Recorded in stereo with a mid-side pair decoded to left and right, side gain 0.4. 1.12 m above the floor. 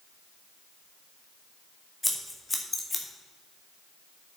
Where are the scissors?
15° left, 1.9 m.